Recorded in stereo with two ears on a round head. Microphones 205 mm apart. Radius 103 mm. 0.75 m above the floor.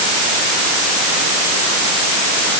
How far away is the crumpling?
No crumpling in this recording.